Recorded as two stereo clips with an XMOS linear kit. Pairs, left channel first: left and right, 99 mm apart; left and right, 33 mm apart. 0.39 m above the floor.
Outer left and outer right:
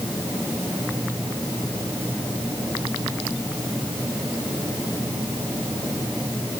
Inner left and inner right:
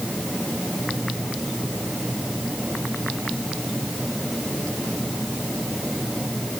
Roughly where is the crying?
No crying in this recording.